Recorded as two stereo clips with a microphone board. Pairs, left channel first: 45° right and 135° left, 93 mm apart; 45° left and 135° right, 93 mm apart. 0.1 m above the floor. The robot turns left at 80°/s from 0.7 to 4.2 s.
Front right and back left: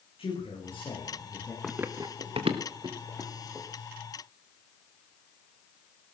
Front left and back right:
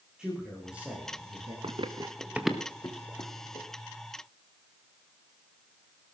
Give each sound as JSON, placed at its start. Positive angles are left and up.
{"t": 0.2, "sound": "a man speaking", "azimuth_deg": -50, "distance_m": 8.5}
{"t": 1.6, "sound": "running footsteps", "azimuth_deg": -135, "distance_m": 1.5}